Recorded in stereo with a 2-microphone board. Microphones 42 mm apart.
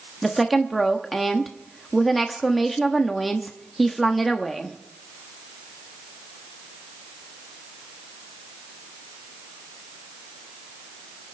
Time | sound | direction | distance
0.2 | a woman speaking | centre (ahead or behind) | 1.0 m